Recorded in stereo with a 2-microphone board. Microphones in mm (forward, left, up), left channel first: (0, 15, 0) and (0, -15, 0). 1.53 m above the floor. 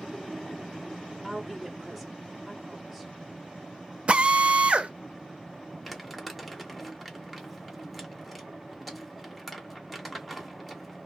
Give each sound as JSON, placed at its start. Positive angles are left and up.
{"t": 1.2, "sound": "a woman speaking", "side_deg": -5, "distance_m": 0.8}
{"t": 4.1, "sound": "a drill", "side_deg": -45, "distance_m": 0.5}
{"t": 5.8, "sound": "crumpling", "side_deg": 5, "distance_m": 1.2}